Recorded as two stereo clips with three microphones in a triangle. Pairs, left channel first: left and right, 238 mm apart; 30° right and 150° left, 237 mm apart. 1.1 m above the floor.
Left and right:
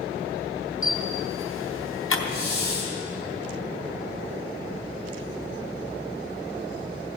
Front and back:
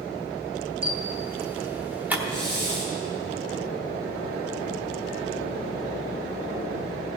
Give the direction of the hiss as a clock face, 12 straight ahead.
9 o'clock.